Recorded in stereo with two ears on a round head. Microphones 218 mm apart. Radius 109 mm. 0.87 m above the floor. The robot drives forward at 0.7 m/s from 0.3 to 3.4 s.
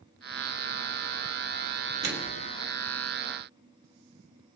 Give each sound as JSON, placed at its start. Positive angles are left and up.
{"t": 2.0, "sound": "a microwave", "side_deg": -45, "distance_m": 1.3}